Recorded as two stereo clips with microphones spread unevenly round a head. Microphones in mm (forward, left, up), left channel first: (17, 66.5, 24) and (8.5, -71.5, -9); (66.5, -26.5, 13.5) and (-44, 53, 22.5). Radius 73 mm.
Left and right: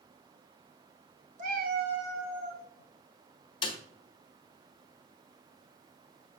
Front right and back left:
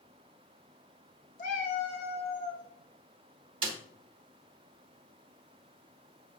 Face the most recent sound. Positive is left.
turn(degrees=110)